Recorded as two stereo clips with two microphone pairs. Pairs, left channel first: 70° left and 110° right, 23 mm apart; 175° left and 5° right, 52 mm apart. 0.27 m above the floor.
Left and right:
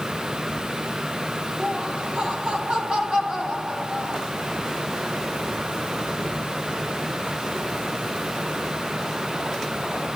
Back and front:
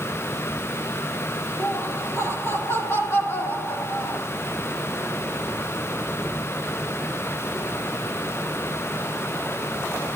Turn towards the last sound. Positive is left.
turn(degrees=-155)